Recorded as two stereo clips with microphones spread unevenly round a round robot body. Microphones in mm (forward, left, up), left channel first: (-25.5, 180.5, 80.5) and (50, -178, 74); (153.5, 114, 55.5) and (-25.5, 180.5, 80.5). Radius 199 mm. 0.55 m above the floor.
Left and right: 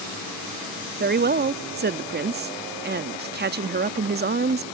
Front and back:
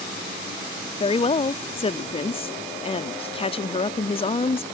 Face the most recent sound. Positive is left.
turn(degrees=-35)